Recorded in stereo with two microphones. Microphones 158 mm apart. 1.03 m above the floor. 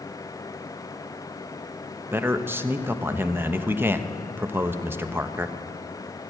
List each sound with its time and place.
2.1 s a man speaking: 15° right (ahead or behind), 0.7 m